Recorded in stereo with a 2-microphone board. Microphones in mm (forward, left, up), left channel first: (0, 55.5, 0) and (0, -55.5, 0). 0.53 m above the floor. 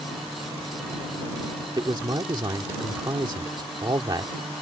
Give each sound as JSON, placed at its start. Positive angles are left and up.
{"t": 1.8, "sound": "a man speaking", "side_deg": -40}